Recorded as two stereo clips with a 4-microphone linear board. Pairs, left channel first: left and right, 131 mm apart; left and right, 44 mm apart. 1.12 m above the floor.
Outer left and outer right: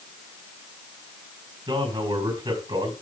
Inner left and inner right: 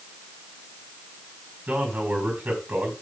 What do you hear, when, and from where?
1.7 s a man speaking: 40° right (ahead or behind), 4.5 m